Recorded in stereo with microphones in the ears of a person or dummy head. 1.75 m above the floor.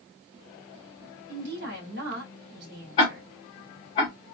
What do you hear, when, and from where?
1.3 s a woman speaking: 60° right (ahead or behind), 1.6 m
3.0 s ticking: 25° left (ahead or behind), 1.4 m